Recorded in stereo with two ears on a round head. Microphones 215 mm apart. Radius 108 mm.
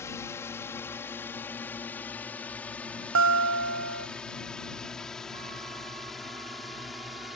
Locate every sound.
0.0 s a drone: 10° left (ahead or behind); by 7.4 s centre (ahead or behind)
3.1 s a guitar: 55° right (ahead or behind)